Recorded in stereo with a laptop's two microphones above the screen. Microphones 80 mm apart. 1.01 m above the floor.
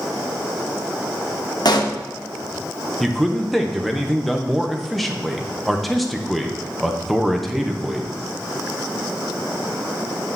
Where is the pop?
55° left (ahead or behind), 1.0 m.